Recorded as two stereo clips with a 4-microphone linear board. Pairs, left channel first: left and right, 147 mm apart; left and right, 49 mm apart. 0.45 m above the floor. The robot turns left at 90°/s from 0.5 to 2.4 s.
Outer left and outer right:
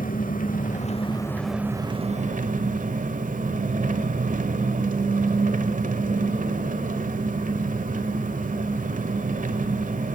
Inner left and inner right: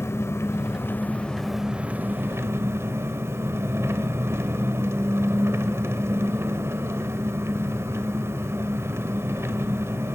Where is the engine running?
90° left, 1.2 m; by 10.2 s 80° right, 1.2 m.